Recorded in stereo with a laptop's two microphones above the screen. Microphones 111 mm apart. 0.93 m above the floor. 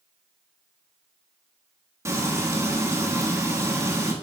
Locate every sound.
2.0 s frying: 25° right (ahead or behind), 1.4 m